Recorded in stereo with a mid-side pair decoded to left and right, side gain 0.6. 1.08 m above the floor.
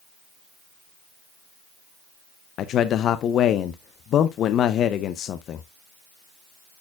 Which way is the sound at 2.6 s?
50° left.